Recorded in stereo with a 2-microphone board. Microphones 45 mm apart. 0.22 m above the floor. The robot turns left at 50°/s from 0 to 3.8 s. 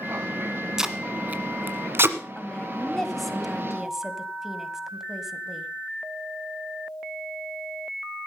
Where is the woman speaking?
20° left (ahead or behind), 1.5 m; by 5.7 s 10° right (ahead or behind), 1.5 m.